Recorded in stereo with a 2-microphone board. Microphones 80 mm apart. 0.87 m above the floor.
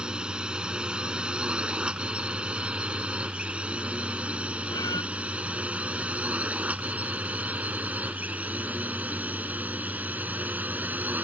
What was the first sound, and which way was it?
A drone, 10° right (ahead or behind).